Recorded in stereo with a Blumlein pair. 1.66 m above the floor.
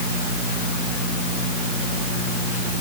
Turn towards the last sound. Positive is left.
No sound to turn to.